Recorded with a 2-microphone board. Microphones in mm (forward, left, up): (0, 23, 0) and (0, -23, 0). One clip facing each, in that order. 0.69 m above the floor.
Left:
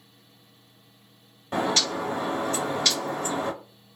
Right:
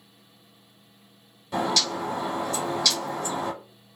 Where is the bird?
30° left (ahead or behind), 1.4 m.